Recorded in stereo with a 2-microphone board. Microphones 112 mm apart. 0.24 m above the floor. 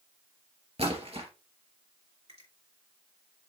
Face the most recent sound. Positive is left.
turn(degrees=-65)  # may be behind; listen again after turning